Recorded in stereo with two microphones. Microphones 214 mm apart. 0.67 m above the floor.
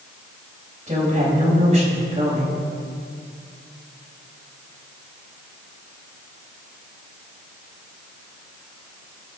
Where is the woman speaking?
30° right (ahead or behind), 4.5 m.